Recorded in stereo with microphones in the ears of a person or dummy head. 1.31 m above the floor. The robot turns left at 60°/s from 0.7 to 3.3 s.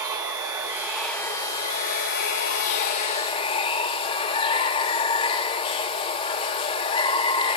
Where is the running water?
165° right, 1.0 m; by 7.6 s 40° left, 1.0 m.